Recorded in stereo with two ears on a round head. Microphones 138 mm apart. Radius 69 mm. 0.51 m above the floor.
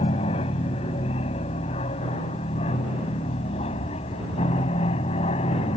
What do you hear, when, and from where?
0.0 s an aircraft: 40° left (ahead or behind)